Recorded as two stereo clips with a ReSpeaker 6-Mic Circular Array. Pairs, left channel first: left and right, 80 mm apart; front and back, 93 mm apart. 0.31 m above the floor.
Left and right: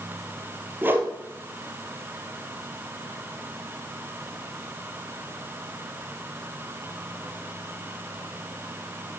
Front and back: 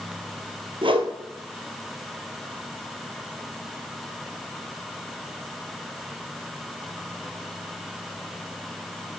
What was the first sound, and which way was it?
A whoosh, 155° right.